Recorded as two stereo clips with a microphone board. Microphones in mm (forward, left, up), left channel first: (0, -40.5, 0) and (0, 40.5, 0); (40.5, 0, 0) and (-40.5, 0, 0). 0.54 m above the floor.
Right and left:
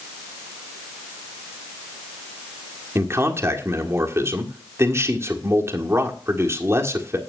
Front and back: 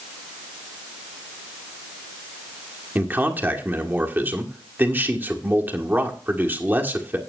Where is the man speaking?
125° left, 1.6 m.